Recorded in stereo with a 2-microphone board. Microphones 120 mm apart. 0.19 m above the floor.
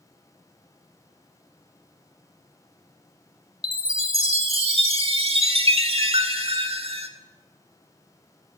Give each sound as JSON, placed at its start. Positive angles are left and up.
{"t": 3.6, "sound": "a chime", "side_deg": -50, "distance_m": 0.5}